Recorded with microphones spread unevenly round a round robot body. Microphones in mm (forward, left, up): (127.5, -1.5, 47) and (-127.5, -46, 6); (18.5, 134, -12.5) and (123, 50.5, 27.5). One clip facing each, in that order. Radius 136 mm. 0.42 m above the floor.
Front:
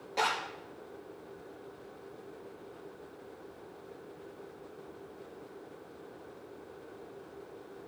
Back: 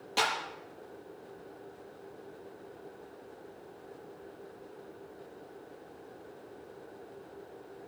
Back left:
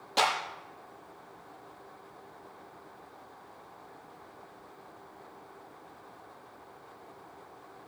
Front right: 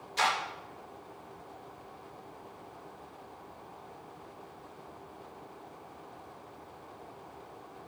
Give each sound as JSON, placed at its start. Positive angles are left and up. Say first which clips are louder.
{"t": 0.2, "sound": "a clap", "louder": "even, back left 2 dB", "azimuth_deg": 145, "distance_m": 8.5}